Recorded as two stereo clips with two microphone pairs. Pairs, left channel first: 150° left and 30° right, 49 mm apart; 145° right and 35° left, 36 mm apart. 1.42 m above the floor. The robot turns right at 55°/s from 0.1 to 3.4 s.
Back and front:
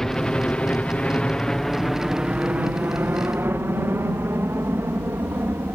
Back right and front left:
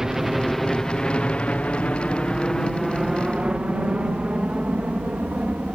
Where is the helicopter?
90° left; by 5.8 s 10° right.